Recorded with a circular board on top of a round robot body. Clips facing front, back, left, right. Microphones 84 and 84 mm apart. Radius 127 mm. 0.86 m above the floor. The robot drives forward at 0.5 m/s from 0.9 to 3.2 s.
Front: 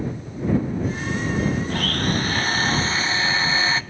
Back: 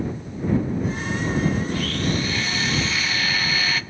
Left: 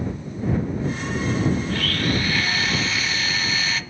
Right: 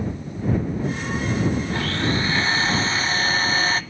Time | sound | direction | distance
1.7 | a blender | 25° right | 1.5 m